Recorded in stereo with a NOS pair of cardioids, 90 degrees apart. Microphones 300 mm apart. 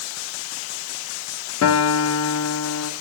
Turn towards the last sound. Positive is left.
turn(degrees=60)